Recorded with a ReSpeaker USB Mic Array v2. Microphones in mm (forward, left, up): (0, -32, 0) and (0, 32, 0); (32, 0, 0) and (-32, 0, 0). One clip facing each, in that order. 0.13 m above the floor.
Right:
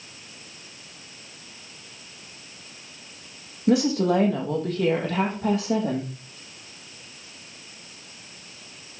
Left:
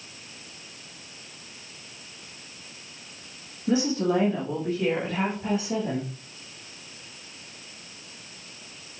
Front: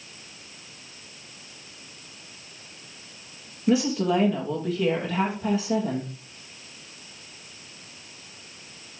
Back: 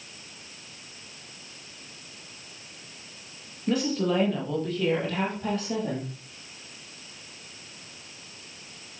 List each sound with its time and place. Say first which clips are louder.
3.7 s a woman speaking: right 3 dB, front 3 dB; 85° right, 3 m